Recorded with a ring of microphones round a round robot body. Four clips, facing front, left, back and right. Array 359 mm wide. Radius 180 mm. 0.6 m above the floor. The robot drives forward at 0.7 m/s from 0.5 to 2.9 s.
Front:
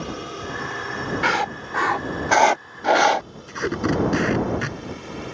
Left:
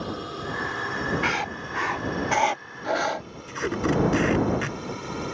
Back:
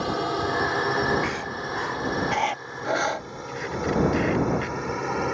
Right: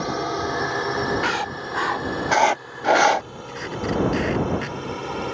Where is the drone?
130° right; by 5.3 s 150° right.